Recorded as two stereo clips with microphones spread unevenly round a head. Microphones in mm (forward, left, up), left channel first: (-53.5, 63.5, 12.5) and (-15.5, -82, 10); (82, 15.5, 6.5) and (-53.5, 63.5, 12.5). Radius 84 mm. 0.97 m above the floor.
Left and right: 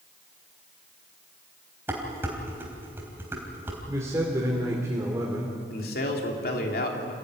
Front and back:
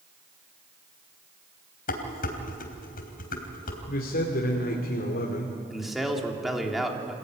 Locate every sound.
1.9 s dishes clattering: 5° left, 3.5 m
3.9 s a man speaking: straight ahead, 2.5 m
5.7 s a man speaking: 70° left, 3 m